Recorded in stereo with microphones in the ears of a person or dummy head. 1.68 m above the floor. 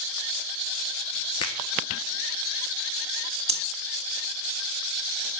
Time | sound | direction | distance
1.4 | a finger snap | 25° left (ahead or behind) | 0.9 m
3.5 | breathing | 30° right (ahead or behind) | 1.9 m